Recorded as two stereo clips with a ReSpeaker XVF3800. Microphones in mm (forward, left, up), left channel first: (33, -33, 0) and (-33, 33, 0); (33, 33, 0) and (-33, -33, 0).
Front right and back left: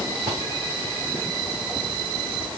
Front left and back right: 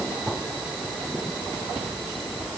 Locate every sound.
Only background noise.